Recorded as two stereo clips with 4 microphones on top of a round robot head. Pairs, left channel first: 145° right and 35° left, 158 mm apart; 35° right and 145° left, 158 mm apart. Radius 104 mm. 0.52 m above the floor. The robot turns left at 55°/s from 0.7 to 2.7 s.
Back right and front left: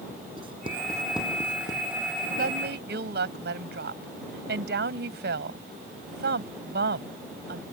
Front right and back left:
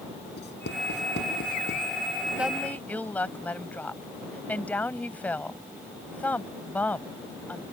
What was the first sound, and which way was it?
Writing, 25° right.